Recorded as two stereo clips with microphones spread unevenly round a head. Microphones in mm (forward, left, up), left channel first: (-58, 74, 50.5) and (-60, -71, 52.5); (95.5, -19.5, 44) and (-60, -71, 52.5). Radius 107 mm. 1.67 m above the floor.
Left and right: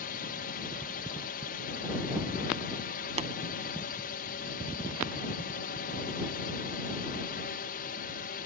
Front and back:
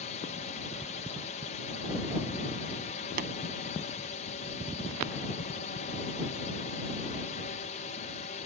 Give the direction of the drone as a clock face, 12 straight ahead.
10 o'clock.